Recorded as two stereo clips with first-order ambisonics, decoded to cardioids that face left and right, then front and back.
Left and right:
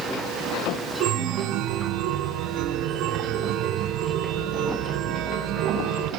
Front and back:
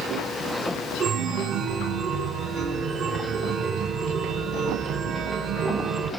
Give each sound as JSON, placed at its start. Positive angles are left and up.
{"t": 1.0, "sound": "a chime", "azimuth_deg": -130, "distance_m": 2.0}